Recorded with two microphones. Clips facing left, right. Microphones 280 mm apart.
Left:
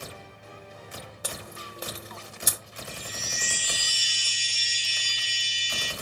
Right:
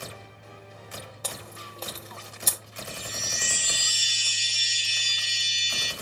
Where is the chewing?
15° left (ahead or behind), 0.5 m.